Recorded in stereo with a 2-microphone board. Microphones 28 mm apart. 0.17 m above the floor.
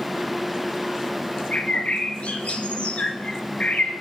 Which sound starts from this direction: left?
A bird, at 1.5 s.